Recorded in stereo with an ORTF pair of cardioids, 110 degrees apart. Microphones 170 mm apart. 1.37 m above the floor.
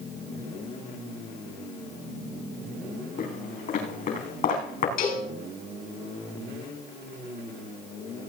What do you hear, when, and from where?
3.2 s footsteps: 50° left, 5 m
5.0 s a cowbell: 60° left, 6 m